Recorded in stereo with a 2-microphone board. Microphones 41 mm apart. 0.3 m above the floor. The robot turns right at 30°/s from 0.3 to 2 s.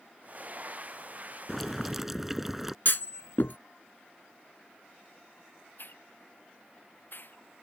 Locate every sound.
1.5 s boiling: 5° left (ahead or behind); by 2.8 s 10° right (ahead or behind)
2.9 s a clunk: 65° left (ahead or behind)
5.8 s a hiss: 60° left (ahead or behind)